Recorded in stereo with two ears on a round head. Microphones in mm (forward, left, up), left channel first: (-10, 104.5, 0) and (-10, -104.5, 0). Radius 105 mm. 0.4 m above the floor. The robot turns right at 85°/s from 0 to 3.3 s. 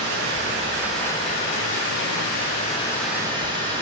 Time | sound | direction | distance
0.0 | running water | 80° right | 5.5 m